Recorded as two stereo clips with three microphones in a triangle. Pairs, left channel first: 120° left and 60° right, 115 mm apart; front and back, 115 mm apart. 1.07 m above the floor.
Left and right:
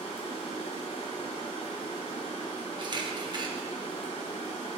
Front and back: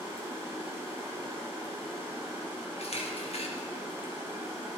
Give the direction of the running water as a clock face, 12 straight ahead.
8 o'clock.